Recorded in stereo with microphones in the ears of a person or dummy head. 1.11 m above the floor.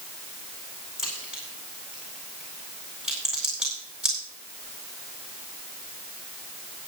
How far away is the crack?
About 5 m.